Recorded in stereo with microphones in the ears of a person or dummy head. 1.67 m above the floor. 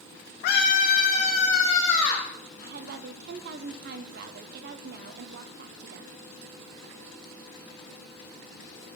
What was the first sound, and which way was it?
A scream, 55° left (ahead or behind).